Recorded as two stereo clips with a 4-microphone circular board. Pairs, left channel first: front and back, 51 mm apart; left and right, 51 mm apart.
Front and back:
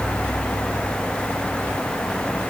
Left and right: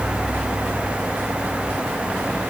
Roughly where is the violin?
No violin in this recording.